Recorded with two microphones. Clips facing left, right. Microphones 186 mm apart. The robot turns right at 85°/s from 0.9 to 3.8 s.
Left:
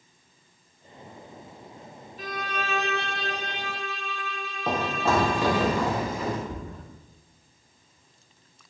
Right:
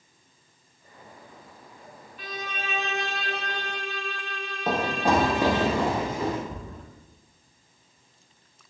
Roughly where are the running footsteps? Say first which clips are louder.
Right 2 dB; centre.